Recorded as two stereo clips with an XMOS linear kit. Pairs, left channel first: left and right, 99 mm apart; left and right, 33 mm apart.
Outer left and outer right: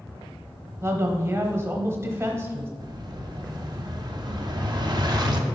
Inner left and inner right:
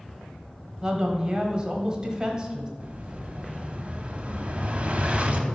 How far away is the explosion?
About 0.7 m.